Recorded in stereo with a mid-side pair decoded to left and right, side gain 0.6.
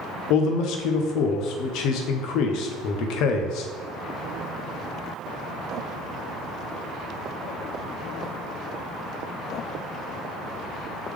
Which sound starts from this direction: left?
A man speaking, at 0.3 s.